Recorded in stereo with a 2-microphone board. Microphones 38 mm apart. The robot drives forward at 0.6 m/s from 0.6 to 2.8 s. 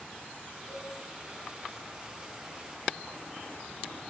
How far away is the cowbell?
About 8.5 m.